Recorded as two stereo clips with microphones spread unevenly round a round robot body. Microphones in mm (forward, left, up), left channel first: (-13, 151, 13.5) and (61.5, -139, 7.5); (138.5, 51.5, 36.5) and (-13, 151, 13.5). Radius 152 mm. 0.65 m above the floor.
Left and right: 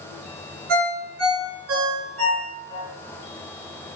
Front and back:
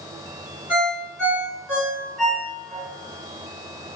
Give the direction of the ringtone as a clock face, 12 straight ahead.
4 o'clock.